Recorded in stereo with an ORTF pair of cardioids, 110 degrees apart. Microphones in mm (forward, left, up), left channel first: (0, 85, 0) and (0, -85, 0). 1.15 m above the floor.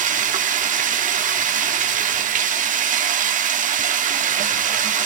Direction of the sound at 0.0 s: 55° right.